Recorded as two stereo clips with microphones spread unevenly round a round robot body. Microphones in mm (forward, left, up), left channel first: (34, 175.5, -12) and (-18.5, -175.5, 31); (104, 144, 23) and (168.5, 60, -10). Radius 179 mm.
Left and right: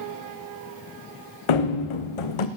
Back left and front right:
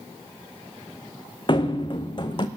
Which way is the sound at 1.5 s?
90° left.